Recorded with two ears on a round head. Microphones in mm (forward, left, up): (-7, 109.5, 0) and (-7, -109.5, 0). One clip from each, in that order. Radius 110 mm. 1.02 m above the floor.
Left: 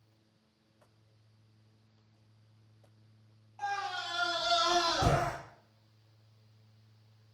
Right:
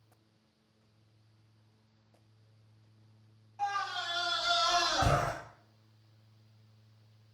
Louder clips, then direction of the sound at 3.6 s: Right 2 dB; 10° left (ahead or behind).